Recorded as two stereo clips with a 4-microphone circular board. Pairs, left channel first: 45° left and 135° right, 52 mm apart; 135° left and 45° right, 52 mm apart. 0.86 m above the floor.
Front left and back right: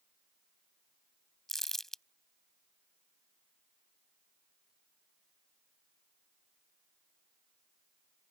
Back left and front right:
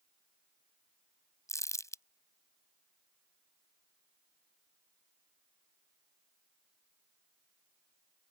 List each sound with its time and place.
1.5 s crumpling: 130° left